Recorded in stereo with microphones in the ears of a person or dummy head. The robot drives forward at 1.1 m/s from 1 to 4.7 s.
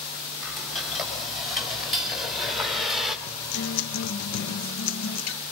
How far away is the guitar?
About 1.8 m.